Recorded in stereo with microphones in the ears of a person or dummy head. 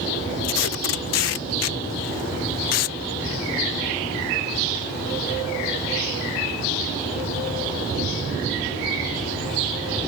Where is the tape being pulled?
70° left (ahead or behind).